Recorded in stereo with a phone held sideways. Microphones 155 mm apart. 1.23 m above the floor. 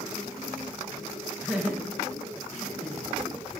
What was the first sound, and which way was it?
Laughter, 10° left (ahead or behind).